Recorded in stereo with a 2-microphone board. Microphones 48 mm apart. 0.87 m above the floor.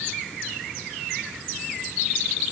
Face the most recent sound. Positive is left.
No sound to turn to.